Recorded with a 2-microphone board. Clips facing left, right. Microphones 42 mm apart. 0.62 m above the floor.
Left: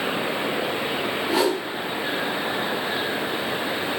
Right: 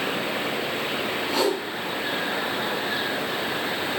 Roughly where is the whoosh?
Centre.